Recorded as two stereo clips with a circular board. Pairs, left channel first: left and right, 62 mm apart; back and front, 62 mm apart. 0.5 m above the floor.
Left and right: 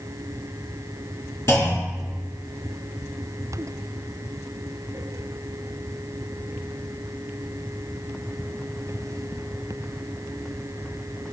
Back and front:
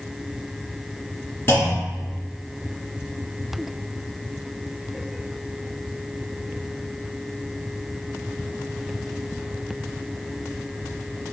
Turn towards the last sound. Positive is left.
turn(degrees=130)